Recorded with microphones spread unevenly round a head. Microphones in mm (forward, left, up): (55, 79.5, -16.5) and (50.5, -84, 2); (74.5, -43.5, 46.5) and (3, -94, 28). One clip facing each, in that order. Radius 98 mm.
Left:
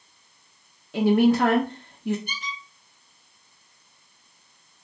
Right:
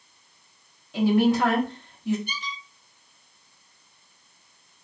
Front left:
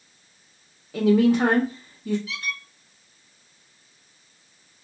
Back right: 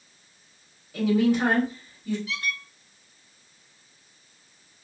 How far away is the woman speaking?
About 0.6 m.